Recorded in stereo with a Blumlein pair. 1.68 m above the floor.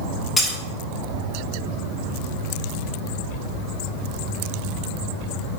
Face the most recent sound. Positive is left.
turn(degrees=15)